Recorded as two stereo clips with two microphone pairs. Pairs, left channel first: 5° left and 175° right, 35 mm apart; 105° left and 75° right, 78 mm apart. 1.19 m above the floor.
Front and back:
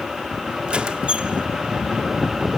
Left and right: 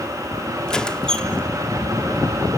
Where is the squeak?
Straight behind, 0.8 m.